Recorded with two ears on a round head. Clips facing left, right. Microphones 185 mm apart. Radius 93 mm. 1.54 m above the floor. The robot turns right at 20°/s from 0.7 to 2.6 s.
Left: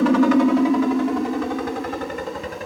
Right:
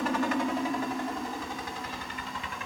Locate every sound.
0.0 s a helicopter: 65° left (ahead or behind); by 2.7 s 40° left (ahead or behind)